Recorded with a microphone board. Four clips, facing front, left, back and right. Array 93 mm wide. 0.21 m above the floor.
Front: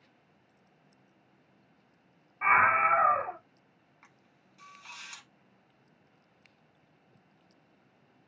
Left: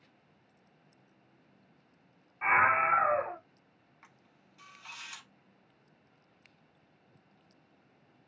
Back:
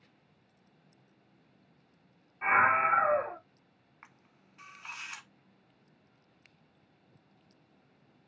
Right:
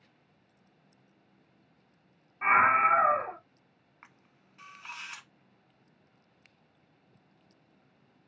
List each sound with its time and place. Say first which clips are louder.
2.4 s a scream: right 3 dB, front 2 dB; 10° left, 1.4 m
4.0 s a camera shutter: right 3 dB, back 4 dB; 135° right, 0.8 m